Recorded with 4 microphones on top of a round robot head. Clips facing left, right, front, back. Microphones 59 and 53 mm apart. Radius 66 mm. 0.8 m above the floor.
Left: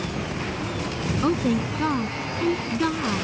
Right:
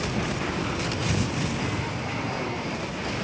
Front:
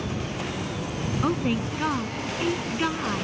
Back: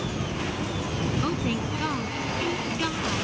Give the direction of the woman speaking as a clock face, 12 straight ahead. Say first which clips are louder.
Left 6 dB, front 2 dB; 10 o'clock.